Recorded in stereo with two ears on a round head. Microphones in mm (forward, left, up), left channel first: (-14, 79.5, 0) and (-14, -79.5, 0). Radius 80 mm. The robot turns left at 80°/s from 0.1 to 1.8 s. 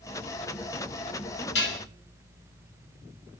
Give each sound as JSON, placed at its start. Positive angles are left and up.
{"t": 1.6, "sound": "dishes clattering", "side_deg": 75, "distance_m": 1.0}